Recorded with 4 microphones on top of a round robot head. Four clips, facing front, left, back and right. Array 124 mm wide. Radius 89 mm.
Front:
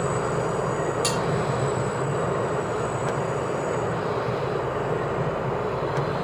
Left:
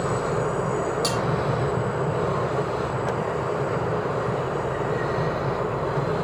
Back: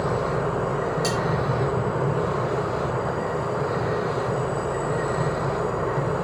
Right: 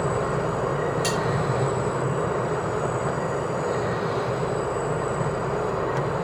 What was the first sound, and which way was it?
Cutlery clinking, 30° left.